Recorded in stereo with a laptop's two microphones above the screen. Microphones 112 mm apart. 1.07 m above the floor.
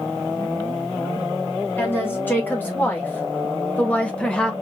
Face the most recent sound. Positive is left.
turn(degrees=5)  # may be behind; listen again after turning